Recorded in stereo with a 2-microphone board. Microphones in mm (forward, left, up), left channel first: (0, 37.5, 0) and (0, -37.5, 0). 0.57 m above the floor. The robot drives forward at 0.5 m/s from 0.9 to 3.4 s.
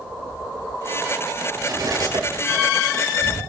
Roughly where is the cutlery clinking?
Right.